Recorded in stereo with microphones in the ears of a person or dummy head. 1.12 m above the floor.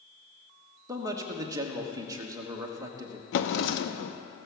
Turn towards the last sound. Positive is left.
turn(degrees=70)  # may be behind; listen again after turning